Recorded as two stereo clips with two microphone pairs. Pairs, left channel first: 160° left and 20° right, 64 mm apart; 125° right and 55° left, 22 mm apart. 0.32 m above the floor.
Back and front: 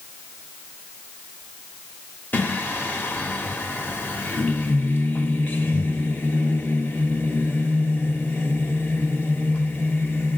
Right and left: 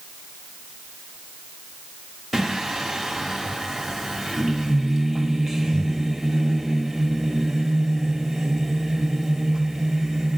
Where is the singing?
140° left, 1.3 m.